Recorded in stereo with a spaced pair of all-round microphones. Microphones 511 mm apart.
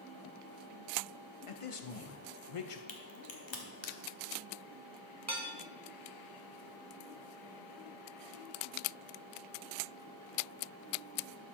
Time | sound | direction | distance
1.5 | a man speaking | 80° left | 0.9 m
2.9 | a crack | 60° left (ahead or behind) | 1.2 m
5.3 | dishes clattering | 30° right (ahead or behind) | 1.1 m